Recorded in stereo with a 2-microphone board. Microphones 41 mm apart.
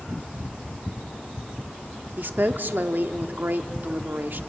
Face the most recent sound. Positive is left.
turn(degrees=-55)  # may be behind; listen again after turning